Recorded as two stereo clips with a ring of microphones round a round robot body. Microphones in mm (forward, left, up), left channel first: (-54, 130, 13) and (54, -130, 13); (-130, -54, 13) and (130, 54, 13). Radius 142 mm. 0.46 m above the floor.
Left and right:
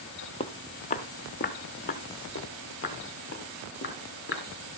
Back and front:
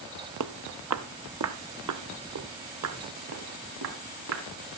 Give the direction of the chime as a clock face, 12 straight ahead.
No chime in this recording.